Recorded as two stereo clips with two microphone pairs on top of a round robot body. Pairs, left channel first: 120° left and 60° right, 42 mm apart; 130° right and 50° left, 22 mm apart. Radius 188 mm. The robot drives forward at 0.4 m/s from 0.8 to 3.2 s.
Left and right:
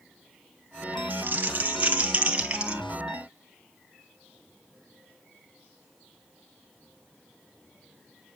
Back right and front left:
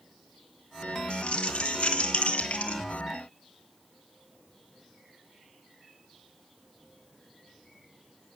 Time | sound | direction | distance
1.1 | crumpling | 110° right | 1.5 m